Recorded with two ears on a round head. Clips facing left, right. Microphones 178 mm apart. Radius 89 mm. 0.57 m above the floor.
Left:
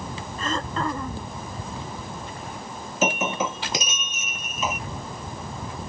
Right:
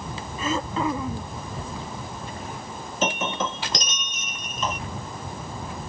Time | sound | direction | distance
0.4 | throat clearing | 5° right (ahead or behind) | ?
3.0 | breaking glass | 5° left (ahead or behind) | ?